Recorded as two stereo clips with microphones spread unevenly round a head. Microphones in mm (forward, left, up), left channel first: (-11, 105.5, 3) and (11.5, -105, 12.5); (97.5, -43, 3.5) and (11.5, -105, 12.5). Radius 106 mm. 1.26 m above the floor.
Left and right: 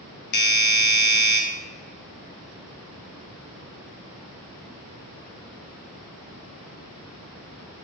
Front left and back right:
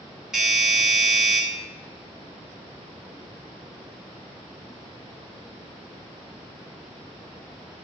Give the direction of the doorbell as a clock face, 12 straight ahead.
8 o'clock.